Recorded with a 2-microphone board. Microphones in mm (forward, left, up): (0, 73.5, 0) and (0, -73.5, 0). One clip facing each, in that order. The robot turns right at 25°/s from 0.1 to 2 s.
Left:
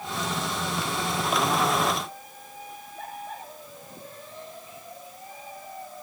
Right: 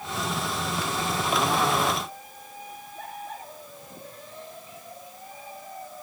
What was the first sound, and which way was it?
Only background noise.